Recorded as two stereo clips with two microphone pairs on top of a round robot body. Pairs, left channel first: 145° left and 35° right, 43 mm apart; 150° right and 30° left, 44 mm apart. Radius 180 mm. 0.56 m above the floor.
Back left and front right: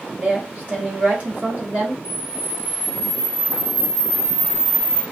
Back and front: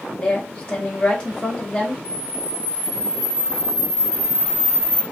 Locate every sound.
0.2 s a woman speaking: 80° right, 1.5 m
2.0 s a camera shutter: 85° right, 1.0 m